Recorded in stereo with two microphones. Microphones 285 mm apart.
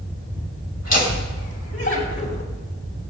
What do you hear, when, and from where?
0.8 s laughter: 65° left (ahead or behind), 2.5 m; by 2.4 s 40° left (ahead or behind), 2 m